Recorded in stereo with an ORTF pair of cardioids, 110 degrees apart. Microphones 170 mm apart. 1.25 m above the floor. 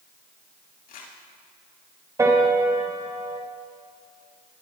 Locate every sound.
0.9 s crumpling: 60° left, 7.5 m
2.2 s a piano: 20° right, 4 m